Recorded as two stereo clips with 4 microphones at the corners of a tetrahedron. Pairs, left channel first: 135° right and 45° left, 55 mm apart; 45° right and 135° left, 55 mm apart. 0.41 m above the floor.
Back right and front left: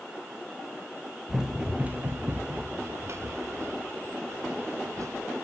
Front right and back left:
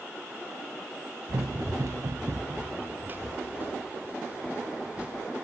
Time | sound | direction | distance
1.3 | running footsteps | 125° left | 1.9 m